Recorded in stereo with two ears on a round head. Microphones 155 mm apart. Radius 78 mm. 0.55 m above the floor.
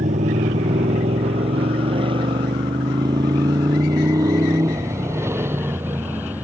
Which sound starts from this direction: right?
A motorcycle, at 0.0 s.